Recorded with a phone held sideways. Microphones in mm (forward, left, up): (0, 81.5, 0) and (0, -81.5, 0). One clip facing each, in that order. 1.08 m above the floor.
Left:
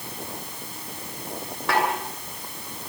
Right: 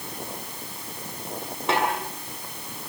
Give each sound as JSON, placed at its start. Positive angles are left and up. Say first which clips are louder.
{"t": 1.7, "sound": "a snare drum", "louder": "left 1 dB", "side_deg": -20, "distance_m": 9.0}